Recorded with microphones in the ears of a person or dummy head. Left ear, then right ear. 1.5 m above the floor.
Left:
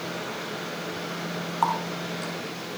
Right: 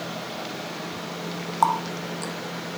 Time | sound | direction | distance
1.6 | a running tap | 15° right (ahead or behind) | 1.0 m